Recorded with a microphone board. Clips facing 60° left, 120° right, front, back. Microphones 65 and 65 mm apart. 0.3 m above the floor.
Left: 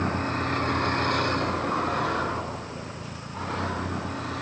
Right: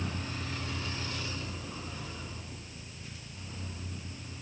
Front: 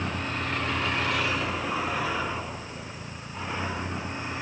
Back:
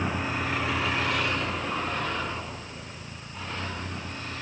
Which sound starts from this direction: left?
A vehicle, at 0.0 s.